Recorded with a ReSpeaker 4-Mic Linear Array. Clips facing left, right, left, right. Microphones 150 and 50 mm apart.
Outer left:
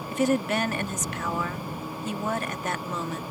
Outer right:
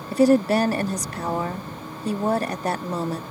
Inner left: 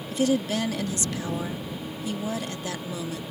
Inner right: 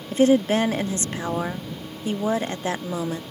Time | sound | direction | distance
0.1 | a woman speaking | 35° right (ahead or behind) | ?